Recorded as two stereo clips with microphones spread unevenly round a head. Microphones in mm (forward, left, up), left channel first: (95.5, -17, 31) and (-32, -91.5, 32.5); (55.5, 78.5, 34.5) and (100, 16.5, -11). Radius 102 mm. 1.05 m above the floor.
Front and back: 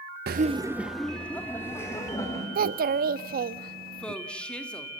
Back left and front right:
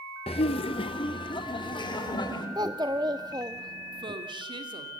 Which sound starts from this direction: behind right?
A child speaking, at 2.5 s.